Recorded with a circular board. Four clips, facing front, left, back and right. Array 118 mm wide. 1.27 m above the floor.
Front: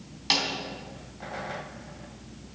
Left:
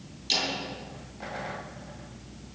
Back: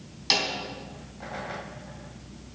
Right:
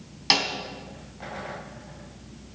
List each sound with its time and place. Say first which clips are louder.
0.3 s a snare drum: right 6 dB, back 1 dB; 85° right, 3.5 m